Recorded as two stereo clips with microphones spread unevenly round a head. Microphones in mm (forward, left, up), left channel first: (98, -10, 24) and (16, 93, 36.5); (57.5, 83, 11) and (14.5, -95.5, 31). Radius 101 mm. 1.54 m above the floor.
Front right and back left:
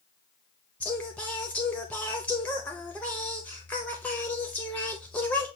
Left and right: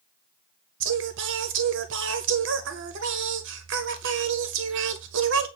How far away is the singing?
About 0.6 m.